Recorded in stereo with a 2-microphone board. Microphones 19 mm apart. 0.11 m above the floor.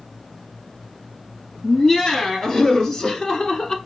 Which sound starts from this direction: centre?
Laughter, at 1.6 s.